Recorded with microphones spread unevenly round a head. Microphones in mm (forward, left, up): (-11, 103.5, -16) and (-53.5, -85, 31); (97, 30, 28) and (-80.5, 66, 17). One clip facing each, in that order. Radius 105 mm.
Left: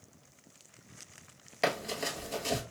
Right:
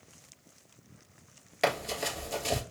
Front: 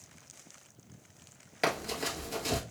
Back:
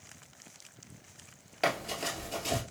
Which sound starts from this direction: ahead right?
Running footsteps, at 1.6 s.